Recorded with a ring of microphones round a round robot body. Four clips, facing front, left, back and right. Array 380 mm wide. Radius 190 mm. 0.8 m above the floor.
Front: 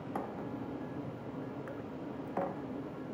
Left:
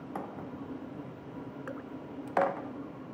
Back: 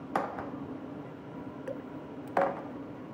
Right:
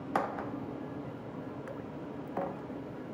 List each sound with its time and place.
1.7 s dripping: 155° left